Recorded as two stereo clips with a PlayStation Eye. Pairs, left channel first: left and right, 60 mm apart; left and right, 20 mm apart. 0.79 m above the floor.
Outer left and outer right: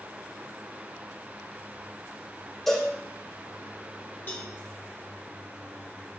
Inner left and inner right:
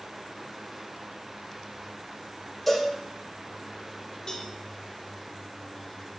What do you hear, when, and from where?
2.7 s a cowbell: 5° left (ahead or behind), 2.5 m
4.3 s a cowbell: 35° left (ahead or behind), 1.4 m